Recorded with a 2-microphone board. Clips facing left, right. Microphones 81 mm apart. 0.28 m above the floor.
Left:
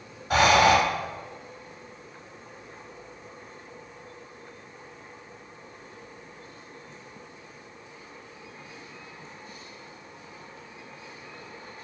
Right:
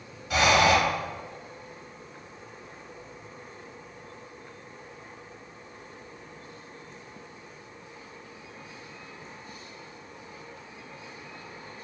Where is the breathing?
45° left (ahead or behind), 0.8 m.